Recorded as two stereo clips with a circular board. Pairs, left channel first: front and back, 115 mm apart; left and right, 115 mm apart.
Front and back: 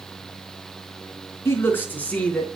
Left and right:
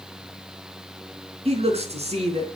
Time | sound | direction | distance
1.4 | a man speaking | 65° right | 3.5 m